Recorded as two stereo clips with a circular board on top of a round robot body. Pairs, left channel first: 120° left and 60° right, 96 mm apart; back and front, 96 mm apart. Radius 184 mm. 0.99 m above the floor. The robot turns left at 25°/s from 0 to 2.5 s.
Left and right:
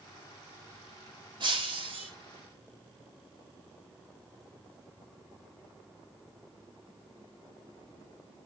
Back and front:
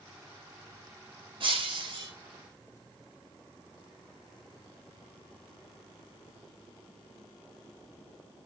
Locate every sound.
1.4 s breaking glass: 25° right, 5.5 m; by 2.1 s 45° right, 5.5 m